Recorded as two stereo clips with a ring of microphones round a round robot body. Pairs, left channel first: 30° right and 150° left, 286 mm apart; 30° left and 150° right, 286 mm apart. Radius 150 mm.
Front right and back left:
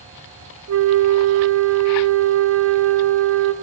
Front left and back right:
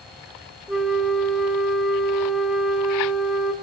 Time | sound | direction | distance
0.7 | a flute | 120° left | 1.9 m